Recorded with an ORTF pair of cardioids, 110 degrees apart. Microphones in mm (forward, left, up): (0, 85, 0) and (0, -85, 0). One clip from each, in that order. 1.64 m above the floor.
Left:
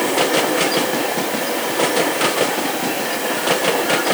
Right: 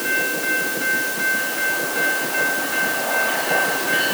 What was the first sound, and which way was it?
Only background noise.